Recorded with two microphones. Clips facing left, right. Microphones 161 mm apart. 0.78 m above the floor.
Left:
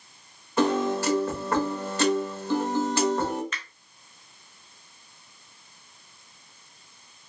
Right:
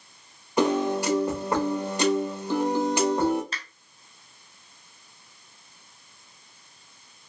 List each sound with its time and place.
0.6 s a piano: 15° right (ahead or behind), 0.7 m
3.5 s a finger snap: 35° right (ahead or behind), 0.5 m